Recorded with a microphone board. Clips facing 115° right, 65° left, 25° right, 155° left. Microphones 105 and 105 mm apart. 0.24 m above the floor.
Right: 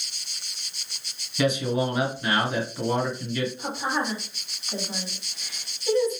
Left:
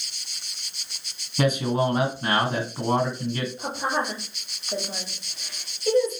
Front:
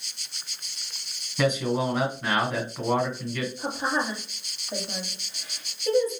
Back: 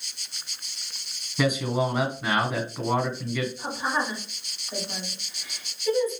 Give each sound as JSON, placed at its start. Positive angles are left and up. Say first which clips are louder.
{"t": 1.4, "sound": "a man speaking", "louder": "left 1 dB, even", "azimuth_deg": 65, "distance_m": 2.0}
{"t": 3.6, "sound": "a woman speaking", "louder": "left 1 dB, even", "azimuth_deg": 25, "distance_m": 3.5}